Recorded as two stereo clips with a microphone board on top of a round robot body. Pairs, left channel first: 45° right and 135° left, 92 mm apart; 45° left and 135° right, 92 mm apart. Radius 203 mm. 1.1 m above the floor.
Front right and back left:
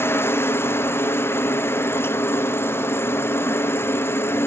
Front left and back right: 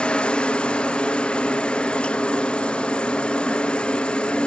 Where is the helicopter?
20° right.